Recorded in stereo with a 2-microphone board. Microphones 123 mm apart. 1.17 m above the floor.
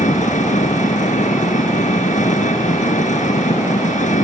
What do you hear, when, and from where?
0.0 s an engine running: 85° left